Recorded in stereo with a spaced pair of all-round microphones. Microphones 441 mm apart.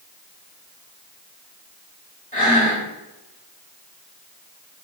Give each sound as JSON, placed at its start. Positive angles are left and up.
{"t": 2.3, "sound": "breathing", "side_deg": 20, "distance_m": 1.7}